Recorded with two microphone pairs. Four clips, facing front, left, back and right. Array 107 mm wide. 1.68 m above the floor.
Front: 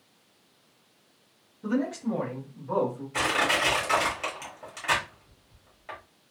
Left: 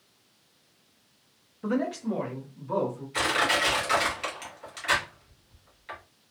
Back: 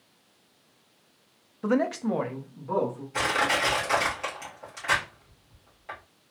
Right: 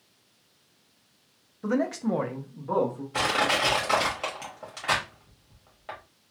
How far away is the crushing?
About 1.9 m.